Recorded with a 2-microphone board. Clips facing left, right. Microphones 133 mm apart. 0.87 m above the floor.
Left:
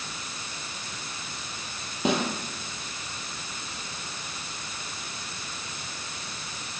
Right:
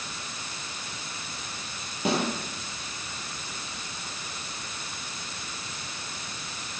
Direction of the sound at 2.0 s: 20° left (ahead or behind).